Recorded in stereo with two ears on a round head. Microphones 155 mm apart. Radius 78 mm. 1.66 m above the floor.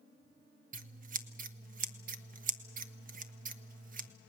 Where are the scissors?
50° right (ahead or behind), 0.9 m.